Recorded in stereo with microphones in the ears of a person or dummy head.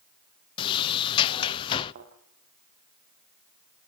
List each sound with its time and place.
0.6 s a sliding door: 25° left (ahead or behind), 0.6 m
1.9 s a thud: 40° right (ahead or behind), 6 m